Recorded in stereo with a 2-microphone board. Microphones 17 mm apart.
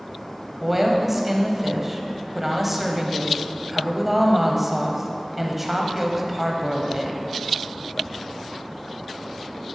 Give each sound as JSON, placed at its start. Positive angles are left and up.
{"t": 0.6, "sound": "a woman speaking", "side_deg": -10, "distance_m": 0.9}